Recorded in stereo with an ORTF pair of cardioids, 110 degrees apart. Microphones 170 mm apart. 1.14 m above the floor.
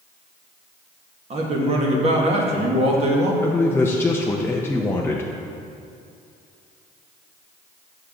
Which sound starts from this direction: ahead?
A man speaking, at 3.4 s.